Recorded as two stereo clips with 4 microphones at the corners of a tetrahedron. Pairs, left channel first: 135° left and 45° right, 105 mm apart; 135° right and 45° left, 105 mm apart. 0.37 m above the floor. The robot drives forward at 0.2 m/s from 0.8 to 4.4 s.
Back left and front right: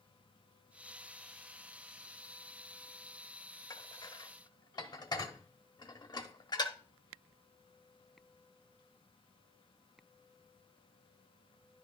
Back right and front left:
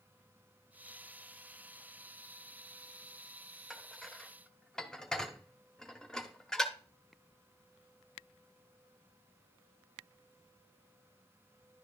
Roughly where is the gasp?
I don't hear a gasp.